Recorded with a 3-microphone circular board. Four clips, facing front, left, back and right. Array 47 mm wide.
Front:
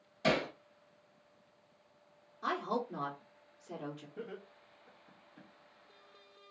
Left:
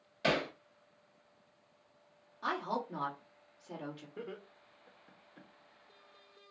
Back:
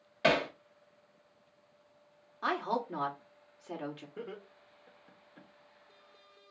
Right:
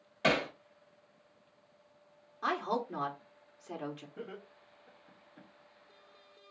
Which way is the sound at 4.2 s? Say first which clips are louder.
Even, back 2 dB; 150° left.